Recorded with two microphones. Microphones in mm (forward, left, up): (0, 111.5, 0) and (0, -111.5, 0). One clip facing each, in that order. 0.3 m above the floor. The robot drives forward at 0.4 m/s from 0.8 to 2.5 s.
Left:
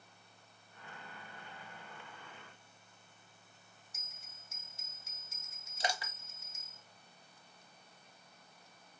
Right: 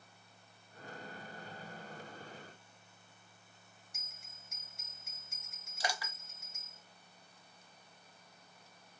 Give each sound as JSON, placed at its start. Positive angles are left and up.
{"t": 3.9, "sound": "a bell", "side_deg": -55, "distance_m": 2.5}
{"t": 5.8, "sound": "crushing", "side_deg": 25, "distance_m": 1.0}